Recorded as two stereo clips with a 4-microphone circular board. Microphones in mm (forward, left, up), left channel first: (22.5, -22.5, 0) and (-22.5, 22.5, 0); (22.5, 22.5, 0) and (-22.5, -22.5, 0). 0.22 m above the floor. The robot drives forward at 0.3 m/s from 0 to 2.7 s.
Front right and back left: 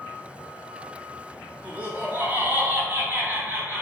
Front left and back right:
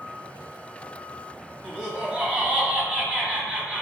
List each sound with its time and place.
1.6 s laughter: 160° left, 1.5 m; by 3.8 s 165° left, 1.6 m